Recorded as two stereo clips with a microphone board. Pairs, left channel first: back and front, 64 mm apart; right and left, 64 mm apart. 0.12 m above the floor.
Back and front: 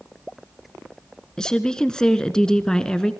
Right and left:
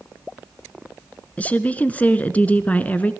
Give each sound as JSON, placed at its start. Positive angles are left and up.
{"t": 1.4, "sound": "a woman speaking", "azimuth_deg": -115, "distance_m": 1.2}